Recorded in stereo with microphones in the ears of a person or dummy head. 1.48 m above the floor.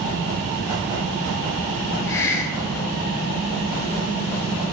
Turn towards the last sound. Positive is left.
turn(degrees=15)  # may be behind; listen again after turning